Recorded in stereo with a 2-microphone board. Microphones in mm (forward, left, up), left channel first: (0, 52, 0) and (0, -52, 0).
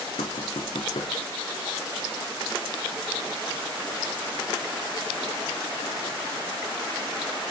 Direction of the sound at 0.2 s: 75° left (ahead or behind).